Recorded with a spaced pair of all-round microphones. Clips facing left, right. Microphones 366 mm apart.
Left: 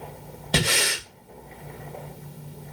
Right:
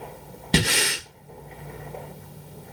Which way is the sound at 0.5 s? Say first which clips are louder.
Right 2 dB; 35° right (ahead or behind).